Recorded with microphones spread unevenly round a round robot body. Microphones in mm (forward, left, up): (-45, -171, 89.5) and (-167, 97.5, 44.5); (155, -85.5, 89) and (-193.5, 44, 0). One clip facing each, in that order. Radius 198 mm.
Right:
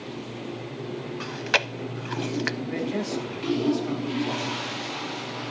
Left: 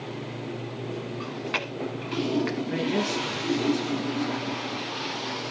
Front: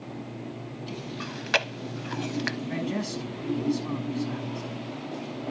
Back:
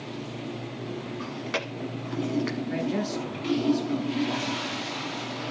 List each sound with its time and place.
1.2 s chewing: 70° right, 0.7 m
2.7 s a man speaking: 20° left, 7 m